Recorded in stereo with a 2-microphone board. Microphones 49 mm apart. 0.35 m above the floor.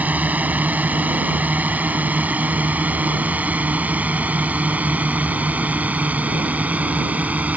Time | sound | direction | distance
0.0 | a drone | 35° right (ahead or behind) | ?